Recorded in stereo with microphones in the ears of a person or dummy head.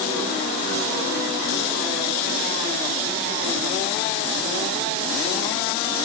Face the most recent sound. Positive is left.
No sound to turn to.